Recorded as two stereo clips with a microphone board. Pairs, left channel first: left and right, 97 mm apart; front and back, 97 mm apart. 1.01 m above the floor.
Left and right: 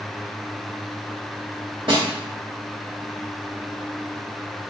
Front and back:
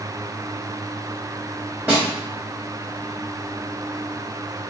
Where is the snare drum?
110° right, 2 m.